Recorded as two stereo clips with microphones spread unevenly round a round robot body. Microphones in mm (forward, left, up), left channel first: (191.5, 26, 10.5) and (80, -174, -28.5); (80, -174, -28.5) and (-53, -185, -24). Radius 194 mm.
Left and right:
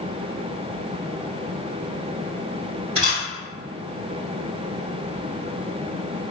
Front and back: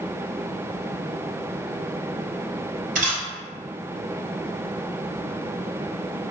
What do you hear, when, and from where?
3.0 s a camera shutter: 165° left, 2.0 m